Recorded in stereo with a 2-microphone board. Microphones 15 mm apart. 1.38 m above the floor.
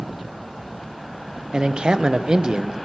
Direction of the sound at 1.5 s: 80° right.